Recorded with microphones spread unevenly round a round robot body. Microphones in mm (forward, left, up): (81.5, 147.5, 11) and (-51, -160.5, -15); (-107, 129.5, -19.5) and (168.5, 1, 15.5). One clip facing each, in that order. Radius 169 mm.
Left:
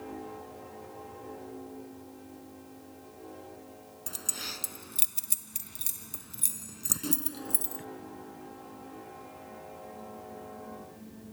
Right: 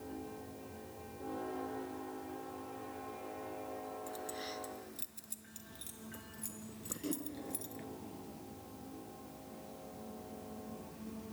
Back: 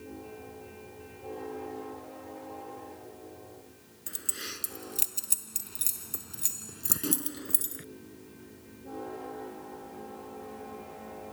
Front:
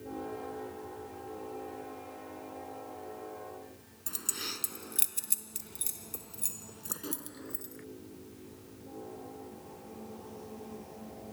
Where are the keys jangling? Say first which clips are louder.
Right 2 dB, front 1 dB; 50° left; by 7.8 s 125° left.